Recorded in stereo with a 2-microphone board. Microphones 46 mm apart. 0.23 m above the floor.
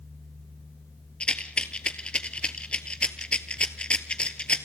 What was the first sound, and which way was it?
A rattle, 25° left (ahead or behind).